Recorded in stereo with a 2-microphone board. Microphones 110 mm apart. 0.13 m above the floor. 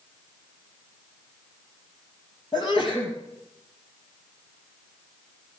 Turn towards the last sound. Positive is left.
turn(degrees=50)  # may be behind; listen again after turning